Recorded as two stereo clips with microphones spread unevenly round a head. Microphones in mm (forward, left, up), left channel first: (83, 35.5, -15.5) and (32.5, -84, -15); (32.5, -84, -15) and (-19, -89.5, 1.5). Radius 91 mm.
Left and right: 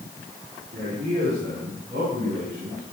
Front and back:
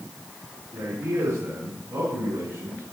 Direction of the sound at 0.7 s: 155° right.